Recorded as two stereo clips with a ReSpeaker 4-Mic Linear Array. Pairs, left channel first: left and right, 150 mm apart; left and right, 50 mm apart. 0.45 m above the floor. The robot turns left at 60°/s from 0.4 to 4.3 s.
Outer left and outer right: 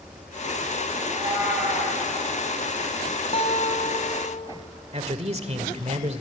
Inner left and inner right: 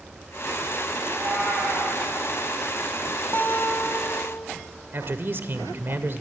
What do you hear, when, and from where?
1.0 s a cat meowing: 140° right, 5 m; by 2.0 s 165° left, 5 m
3.3 s a guitar: 135° left, 2 m; by 4.4 s 75° left, 2 m
4.9 s a man speaking: 45° right (ahead or behind), 1.5 m